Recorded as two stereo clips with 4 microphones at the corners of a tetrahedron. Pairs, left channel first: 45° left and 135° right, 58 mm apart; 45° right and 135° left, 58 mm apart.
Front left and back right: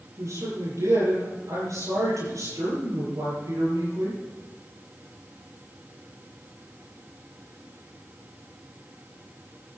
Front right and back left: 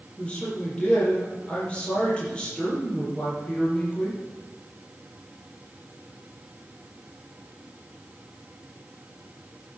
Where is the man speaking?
115° right, 9 m.